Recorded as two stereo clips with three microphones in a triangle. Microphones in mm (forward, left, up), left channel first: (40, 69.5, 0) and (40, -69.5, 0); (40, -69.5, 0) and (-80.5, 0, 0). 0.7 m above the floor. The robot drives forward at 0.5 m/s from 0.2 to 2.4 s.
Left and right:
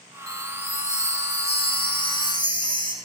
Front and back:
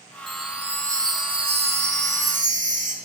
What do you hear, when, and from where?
0.3 s a chime: 60° left, 0.7 m; by 3.0 s 145° left, 1.0 m